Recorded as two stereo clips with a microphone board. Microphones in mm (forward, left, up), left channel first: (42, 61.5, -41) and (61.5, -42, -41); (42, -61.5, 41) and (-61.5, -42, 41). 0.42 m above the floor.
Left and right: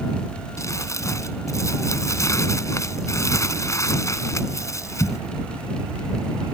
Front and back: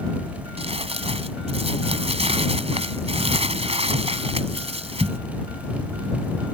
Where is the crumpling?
160° left.